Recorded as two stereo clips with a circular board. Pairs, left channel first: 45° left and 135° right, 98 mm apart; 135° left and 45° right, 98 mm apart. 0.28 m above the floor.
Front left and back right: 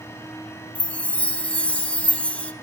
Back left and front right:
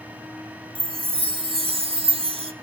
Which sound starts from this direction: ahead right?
A chime, at 0.8 s.